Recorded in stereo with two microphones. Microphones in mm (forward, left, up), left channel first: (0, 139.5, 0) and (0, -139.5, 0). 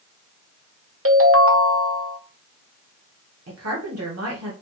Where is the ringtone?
50° right (ahead or behind), 0.7 m.